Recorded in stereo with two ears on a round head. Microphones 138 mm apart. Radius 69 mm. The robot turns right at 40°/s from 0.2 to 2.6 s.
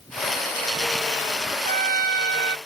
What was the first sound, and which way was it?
A trumpet, 125° right.